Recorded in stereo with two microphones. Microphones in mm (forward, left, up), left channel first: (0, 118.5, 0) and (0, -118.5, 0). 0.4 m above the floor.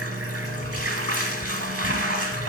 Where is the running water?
75° right (ahead or behind), 1.0 m.